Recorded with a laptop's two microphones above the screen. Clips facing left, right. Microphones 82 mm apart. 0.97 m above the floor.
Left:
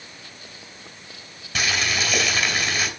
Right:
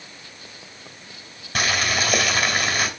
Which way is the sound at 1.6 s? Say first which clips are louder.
Right 2 dB; 45° right (ahead or behind).